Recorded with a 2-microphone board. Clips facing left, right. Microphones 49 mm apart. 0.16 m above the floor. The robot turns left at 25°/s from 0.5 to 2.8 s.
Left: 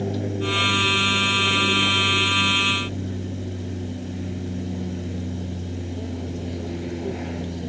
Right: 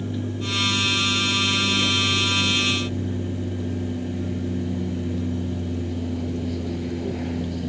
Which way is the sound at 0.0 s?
70° left.